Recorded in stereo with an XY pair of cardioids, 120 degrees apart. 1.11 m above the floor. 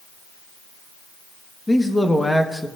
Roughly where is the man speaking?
Ahead.